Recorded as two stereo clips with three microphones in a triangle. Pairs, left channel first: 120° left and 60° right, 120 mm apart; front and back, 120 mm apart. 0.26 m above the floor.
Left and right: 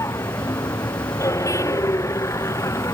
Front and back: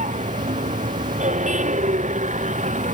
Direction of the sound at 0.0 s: 175° right.